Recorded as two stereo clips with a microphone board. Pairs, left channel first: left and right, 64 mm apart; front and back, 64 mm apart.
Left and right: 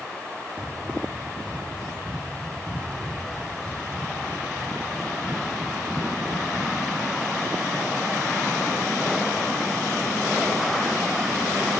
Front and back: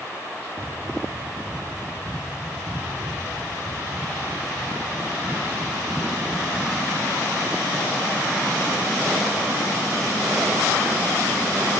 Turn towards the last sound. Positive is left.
turn(degrees=170)